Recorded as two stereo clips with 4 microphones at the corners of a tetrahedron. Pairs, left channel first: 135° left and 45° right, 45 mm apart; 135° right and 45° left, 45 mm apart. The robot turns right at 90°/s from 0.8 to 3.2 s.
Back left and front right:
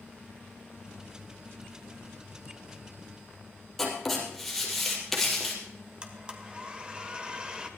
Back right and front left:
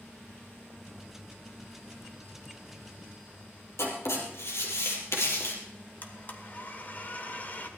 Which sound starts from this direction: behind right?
Writing, at 3.8 s.